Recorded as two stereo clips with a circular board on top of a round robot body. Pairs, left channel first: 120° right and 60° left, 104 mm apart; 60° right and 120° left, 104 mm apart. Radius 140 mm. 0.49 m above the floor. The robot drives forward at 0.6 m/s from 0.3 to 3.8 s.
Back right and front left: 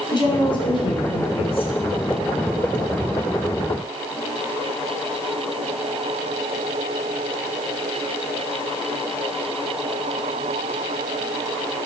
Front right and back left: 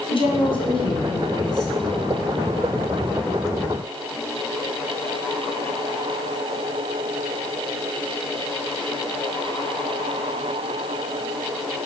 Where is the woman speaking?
90° right, 2 m; by 1.7 s 110° right, 2.5 m.